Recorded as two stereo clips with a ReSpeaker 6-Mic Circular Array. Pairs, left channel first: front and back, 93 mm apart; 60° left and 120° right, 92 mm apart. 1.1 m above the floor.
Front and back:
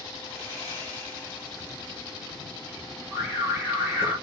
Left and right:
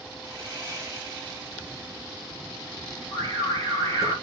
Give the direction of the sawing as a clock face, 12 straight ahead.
2 o'clock.